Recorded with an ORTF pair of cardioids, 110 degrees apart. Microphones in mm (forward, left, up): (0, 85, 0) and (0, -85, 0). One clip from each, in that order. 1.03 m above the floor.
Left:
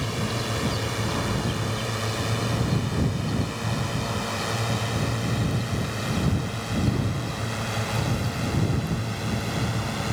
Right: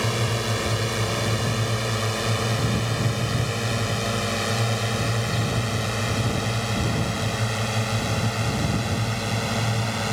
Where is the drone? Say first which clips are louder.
Right 4 dB; 55° right; by 10.1 s 50° right.